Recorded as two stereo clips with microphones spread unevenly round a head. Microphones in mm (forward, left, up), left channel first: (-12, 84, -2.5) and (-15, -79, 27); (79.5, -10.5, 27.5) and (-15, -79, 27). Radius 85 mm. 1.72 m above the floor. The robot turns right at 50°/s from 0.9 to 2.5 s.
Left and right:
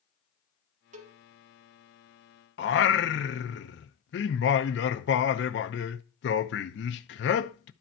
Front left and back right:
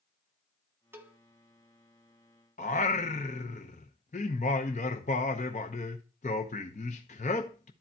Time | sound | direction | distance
0.9 | a cowbell | 80° right | 1.0 m
2.6 | singing | 70° left | 0.8 m